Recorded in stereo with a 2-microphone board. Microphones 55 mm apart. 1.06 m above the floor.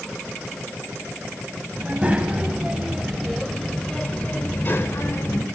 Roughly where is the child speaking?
Right.